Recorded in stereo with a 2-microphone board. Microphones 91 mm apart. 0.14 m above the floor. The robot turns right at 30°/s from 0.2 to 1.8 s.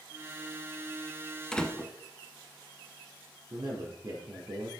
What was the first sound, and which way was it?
A door slam, 10° left (ahead or behind).